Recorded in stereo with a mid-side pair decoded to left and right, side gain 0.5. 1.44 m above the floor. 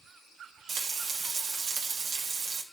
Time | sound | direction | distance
0.7 | frying | 70° right | 2.5 m